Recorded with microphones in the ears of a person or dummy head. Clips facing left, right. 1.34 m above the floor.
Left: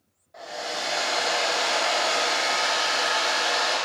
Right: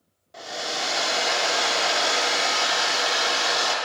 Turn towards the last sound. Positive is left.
turn(degrees=-35)  # may be behind; listen again after turning